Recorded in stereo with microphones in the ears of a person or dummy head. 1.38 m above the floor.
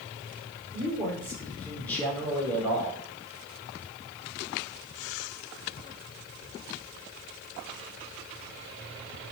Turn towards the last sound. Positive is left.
turn(degrees=10)  # may be behind; listen again after turning